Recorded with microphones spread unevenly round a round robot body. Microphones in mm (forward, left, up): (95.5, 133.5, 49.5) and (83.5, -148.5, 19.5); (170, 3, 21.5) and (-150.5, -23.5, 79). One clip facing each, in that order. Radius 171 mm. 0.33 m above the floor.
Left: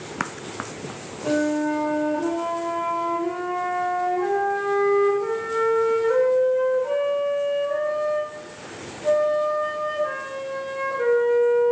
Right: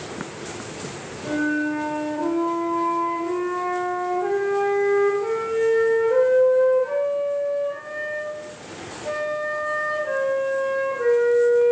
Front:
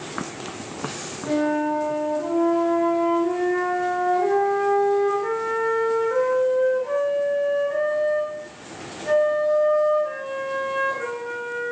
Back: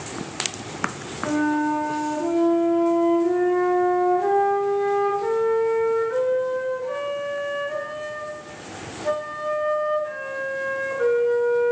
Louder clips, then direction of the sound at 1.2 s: Left 1 dB, back 1 dB; 115° left.